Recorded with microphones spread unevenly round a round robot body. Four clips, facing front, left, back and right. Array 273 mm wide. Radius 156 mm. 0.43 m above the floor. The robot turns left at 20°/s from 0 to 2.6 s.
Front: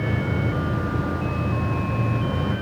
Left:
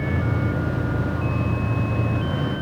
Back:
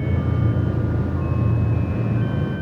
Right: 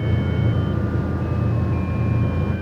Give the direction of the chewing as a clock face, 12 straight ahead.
No chewing in this recording.